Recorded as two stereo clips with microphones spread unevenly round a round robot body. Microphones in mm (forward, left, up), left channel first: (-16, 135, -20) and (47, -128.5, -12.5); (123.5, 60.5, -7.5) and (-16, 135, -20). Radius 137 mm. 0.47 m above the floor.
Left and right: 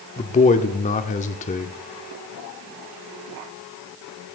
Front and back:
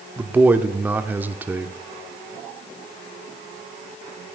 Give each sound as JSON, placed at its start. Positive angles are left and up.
{"t": 0.2, "sound": "a man speaking", "azimuth_deg": 95, "distance_m": 0.7}